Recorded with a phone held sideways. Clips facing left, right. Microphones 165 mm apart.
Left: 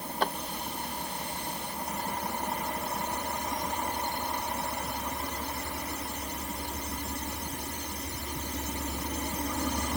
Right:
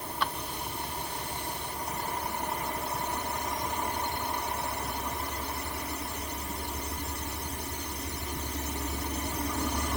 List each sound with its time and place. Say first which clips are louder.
0.2 s a drawer: left 4 dB; 40° left (ahead or behind)